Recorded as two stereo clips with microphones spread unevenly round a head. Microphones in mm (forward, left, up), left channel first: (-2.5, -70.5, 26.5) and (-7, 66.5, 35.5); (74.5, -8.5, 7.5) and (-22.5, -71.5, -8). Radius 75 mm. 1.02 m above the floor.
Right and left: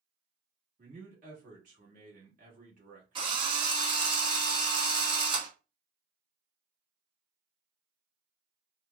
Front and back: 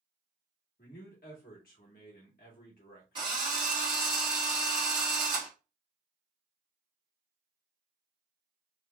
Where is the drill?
150° left, 1.2 m.